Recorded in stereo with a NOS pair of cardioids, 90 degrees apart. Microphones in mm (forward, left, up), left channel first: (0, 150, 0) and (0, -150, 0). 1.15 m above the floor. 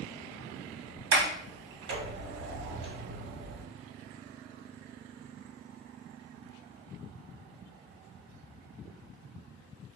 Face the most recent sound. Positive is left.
turn(degrees=-40)